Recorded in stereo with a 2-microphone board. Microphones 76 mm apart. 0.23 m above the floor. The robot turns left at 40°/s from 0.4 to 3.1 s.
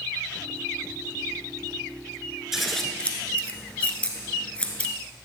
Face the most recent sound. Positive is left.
turn(degrees=20)  # may be behind; listen again after turning